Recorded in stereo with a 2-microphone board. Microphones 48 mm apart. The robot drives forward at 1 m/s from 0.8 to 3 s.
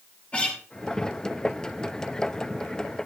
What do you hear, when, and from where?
0.3 s a guitar: 25° left (ahead or behind), 4.5 m